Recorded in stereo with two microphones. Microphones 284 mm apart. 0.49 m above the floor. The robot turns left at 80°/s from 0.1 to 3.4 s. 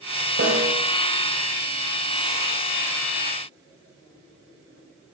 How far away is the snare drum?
About 1.6 m.